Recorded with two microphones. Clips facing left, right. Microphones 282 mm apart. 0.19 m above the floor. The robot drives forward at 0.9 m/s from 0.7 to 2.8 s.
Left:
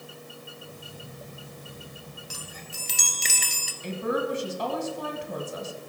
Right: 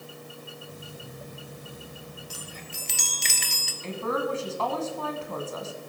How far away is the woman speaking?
About 1.4 m.